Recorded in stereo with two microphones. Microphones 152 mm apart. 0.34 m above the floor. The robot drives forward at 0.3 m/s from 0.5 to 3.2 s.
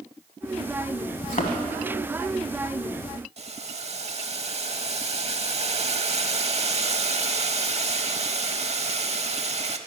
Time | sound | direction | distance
1.2 | a thud | 60° left (ahead or behind) | 1.3 m
3.4 | boiling | 45° right (ahead or behind) | 0.6 m